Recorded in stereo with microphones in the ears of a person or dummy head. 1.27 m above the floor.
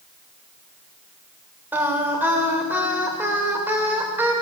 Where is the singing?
10° right (ahead or behind), 1.7 m.